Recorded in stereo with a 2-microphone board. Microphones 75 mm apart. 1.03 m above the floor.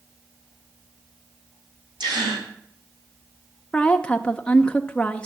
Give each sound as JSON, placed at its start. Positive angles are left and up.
{"t": 2.0, "sound": "a gasp", "side_deg": -80, "distance_m": 4.0}
{"t": 3.7, "sound": "a woman speaking", "side_deg": 15, "distance_m": 0.6}